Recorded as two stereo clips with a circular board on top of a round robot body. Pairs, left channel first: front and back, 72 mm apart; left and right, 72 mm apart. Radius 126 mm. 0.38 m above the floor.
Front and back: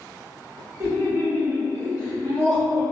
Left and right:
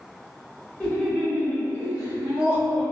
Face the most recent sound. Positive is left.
turn(degrees=135)